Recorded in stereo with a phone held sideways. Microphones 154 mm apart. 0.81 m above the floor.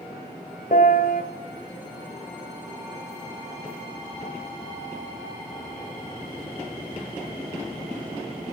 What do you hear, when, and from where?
0.7 s a piano: 60° left (ahead or behind), 1.7 m